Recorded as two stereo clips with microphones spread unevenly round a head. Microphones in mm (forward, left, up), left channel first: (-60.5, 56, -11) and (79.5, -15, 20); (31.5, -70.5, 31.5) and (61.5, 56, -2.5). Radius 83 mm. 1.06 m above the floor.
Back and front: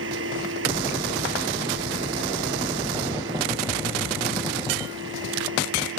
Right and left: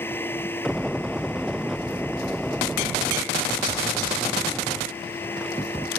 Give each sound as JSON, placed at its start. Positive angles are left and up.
{"t": 0.0, "sound": "a machine running", "azimuth_deg": -30}